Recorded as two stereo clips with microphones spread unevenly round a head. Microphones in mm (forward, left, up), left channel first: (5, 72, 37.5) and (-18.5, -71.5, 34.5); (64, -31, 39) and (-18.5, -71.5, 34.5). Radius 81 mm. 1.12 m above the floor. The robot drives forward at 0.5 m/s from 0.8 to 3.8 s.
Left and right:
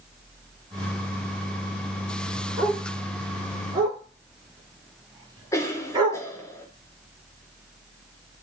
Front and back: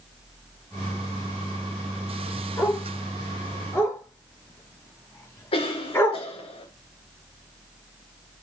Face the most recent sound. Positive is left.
turn(degrees=10)